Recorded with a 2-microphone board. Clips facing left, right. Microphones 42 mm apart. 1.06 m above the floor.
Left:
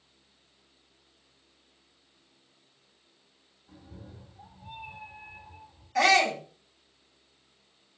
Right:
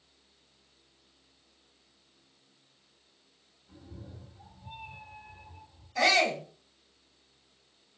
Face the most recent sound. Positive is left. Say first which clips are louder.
# left 3 dB
turn(degrees=70)  # may be behind; listen again after turning